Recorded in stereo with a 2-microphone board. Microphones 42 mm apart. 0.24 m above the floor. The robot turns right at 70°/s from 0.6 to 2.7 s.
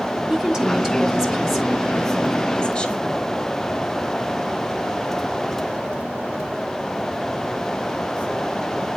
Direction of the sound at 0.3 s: 15° right (ahead or behind).